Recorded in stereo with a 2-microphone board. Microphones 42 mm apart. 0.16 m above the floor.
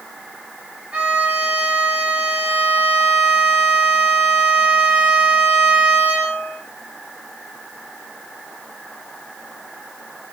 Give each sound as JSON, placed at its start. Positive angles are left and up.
{"t": 0.9, "sound": "a violin", "side_deg": -25, "distance_m": 9.0}